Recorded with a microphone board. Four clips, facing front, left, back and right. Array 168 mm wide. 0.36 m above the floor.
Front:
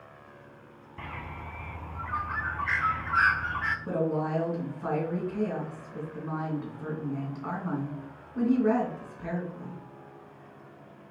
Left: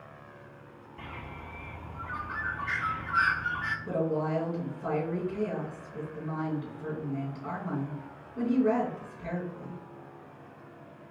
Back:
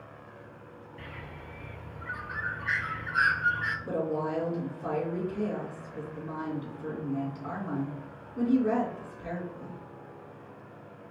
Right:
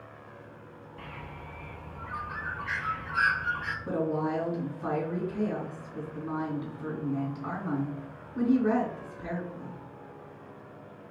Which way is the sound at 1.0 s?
5° left.